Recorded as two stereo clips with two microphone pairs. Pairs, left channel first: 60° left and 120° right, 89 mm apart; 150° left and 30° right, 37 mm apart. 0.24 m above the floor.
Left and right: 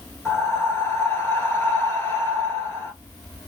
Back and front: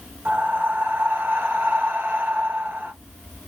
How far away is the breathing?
About 1.1 m.